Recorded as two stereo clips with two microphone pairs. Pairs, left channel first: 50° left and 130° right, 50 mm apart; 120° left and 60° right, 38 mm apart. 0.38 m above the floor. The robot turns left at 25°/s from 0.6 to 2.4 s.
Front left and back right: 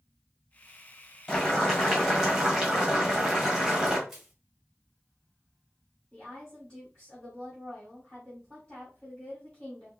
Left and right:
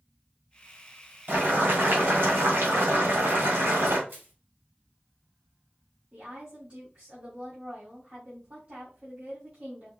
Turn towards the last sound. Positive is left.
turn(degrees=-25)